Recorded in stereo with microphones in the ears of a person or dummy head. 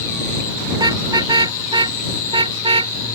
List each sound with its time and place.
0.7 s a car horn: 20° right (ahead or behind); by 2.9 s 30° right (ahead or behind)